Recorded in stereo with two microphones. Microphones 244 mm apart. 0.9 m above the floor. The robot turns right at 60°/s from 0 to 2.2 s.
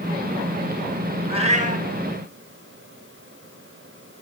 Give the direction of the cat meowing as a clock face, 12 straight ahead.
5 o'clock.